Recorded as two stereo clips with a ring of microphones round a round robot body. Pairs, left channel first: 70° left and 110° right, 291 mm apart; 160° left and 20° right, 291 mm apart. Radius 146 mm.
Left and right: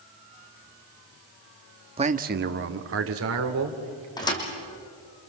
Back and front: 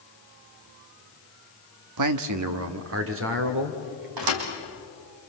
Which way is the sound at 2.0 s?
40° right.